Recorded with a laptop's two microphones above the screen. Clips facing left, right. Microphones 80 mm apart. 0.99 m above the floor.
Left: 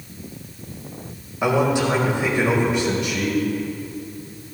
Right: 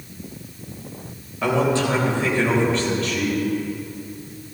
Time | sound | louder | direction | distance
1.4 | a man speaking | left 1 dB | 15° left (ahead or behind) | 3.5 m